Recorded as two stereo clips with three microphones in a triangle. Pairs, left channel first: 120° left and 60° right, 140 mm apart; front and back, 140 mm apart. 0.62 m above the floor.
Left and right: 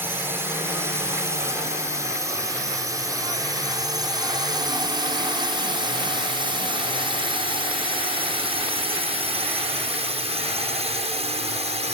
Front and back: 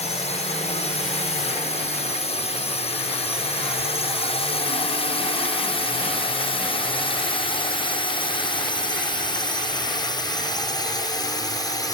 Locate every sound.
0.0 s a drone: 10° left; by 11.9 s 55° right